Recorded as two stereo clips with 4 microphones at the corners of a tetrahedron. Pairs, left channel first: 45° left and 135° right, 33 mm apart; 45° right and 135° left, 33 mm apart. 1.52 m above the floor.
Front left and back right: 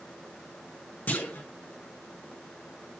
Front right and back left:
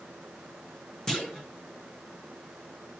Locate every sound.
1.1 s a clunk: 30° left, 2.5 m